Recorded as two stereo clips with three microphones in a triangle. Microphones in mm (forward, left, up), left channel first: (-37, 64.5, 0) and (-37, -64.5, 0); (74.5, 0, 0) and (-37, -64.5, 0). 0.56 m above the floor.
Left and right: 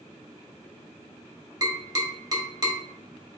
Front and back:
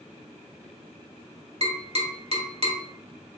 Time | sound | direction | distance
1.6 | tapping | 145° right | 1.2 m